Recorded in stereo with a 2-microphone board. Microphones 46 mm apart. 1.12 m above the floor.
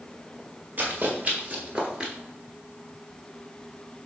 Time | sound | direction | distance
0.8 | running footsteps | 40° right (ahead or behind) | 1.6 m